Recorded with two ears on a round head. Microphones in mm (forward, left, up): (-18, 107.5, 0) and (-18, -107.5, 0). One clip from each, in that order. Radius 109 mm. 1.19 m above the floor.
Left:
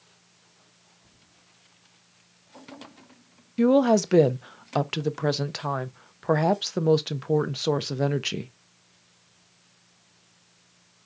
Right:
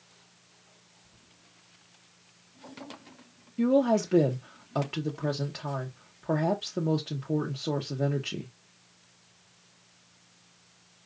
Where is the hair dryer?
No hair dryer in this recording.